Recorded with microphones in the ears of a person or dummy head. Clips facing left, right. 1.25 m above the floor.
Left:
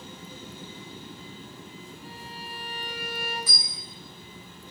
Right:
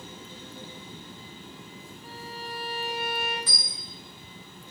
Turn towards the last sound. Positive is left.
turn(degrees=5)  # may be behind; listen again after turning